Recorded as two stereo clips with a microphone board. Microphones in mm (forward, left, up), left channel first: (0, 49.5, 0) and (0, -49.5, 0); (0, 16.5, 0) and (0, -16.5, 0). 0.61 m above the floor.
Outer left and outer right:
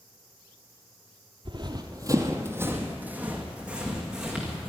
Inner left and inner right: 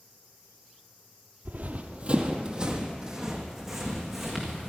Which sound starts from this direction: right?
Running footsteps, at 1.4 s.